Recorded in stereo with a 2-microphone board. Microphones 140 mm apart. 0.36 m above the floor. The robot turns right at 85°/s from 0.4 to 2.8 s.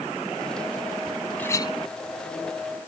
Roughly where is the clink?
Ahead.